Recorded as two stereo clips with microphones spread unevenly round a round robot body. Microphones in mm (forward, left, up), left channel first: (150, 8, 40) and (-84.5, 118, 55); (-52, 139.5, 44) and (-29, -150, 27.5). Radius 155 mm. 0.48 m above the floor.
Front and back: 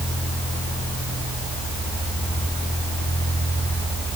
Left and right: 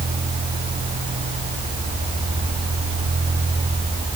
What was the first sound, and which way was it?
Only background noise.